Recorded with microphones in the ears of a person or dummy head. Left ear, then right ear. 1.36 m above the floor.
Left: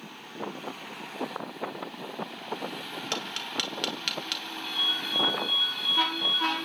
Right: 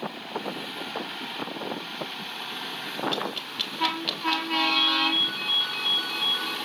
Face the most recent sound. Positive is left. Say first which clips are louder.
# right 4 dB
turn(degrees=5)  # may be behind; listen again after turning